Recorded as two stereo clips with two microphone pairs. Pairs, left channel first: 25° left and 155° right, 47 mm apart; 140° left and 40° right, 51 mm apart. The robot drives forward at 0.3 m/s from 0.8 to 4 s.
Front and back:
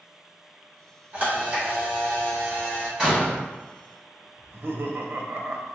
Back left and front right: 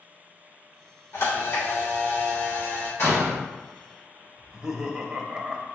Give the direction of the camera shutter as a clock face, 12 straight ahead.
7 o'clock.